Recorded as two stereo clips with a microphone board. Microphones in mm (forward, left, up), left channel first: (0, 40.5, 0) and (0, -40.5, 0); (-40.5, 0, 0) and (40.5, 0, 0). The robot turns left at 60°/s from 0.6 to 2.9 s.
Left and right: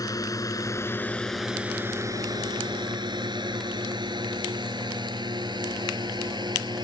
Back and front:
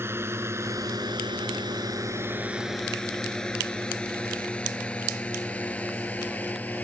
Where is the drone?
55° left; by 6.8 s 110° right.